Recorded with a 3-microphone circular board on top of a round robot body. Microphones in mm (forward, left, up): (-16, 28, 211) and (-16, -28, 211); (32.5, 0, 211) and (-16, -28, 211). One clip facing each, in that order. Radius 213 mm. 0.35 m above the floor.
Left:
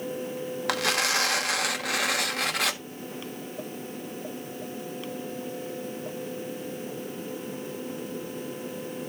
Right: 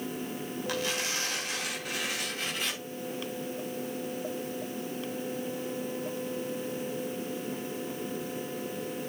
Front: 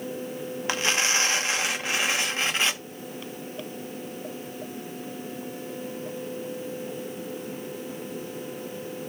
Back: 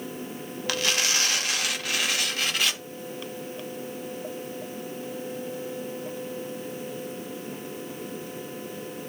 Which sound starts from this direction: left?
Tearing paper, at 0.7 s.